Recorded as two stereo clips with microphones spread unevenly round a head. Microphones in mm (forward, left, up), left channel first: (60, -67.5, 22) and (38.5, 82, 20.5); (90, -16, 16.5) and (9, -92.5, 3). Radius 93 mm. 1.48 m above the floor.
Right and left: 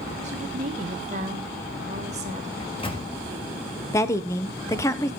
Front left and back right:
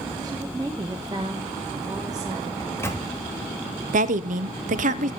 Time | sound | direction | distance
0.2 | a woman speaking | 155° left | 1.6 m
2.6 | a microwave | 25° right | 2.5 m
3.9 | a woman speaking | 160° right | 0.8 m